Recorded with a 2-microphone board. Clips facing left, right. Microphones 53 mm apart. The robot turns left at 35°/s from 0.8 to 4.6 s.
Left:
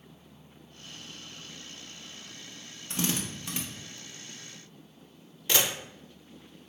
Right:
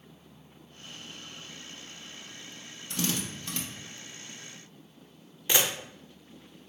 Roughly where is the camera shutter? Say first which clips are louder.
Even; centre.